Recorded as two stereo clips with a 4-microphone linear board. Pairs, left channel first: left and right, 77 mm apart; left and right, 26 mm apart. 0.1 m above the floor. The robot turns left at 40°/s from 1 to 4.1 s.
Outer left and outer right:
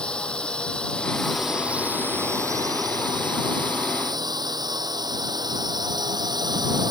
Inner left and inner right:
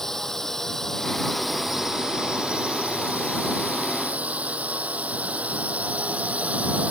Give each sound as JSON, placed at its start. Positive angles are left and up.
{"t": 0.0, "sound": "a drone", "azimuth_deg": 15}